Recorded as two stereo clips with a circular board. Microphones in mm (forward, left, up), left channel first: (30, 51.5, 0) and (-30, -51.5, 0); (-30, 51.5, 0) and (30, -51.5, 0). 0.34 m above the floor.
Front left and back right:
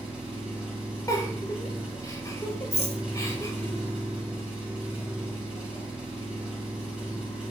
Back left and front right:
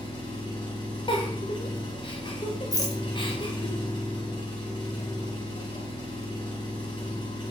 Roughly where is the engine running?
Behind.